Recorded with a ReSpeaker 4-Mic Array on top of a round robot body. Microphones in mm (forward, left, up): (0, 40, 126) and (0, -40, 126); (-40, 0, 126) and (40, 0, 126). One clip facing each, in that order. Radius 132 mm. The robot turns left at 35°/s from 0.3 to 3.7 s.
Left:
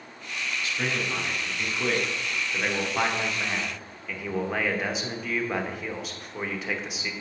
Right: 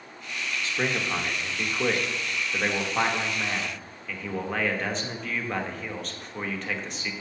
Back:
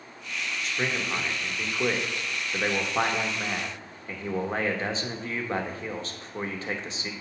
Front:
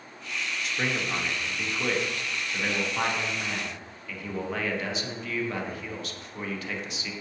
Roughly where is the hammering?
I don't hear hammering.